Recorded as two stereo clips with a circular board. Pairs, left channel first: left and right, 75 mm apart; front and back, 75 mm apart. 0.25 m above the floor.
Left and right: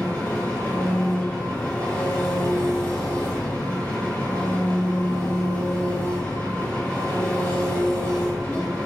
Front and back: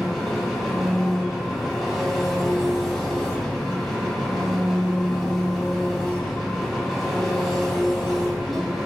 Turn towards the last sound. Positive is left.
turn(degrees=85)